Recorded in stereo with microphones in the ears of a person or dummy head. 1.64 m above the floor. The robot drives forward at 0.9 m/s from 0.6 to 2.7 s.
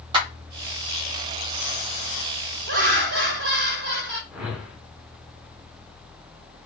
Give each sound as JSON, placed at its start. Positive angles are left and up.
{"t": 0.1, "sound": "a clap", "side_deg": -30, "distance_m": 1.8}
{"t": 2.7, "sound": "laughter", "side_deg": -65, "distance_m": 1.3}
{"t": 4.3, "sound": "a whoosh", "side_deg": -10, "distance_m": 0.8}